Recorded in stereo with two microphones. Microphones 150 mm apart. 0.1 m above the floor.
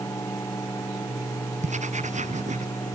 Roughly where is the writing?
Right.